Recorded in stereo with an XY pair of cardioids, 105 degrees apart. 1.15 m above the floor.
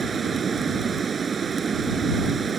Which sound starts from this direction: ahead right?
Running water, at 0.0 s.